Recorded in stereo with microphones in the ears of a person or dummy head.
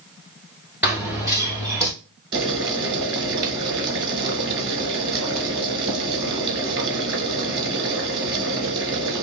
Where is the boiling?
25° right (ahead or behind), 1.2 m.